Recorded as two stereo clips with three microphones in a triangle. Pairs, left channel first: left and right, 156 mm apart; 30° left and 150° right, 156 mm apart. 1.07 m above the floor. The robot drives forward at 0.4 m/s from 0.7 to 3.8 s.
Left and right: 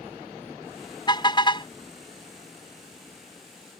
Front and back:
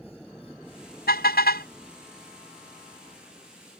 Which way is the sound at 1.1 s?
30° left.